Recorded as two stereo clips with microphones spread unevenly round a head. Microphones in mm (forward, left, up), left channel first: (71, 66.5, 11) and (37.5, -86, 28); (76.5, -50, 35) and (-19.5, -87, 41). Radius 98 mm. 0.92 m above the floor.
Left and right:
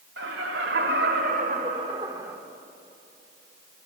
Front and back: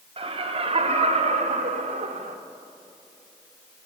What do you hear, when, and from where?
0.2 s laughter: 130° right, 4 m; by 2.4 s 175° left, 2 m